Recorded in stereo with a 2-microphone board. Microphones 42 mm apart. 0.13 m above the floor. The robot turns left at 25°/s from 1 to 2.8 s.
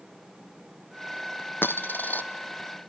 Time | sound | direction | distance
1.6 | a dropped coin | 60° left (ahead or behind) | 1.2 m